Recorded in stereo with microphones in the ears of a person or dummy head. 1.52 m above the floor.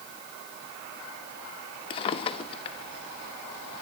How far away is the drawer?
About 1.2 m.